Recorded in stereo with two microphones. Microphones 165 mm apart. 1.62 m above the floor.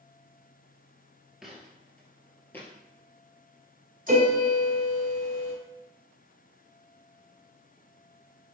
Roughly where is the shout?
I don't hear a shout.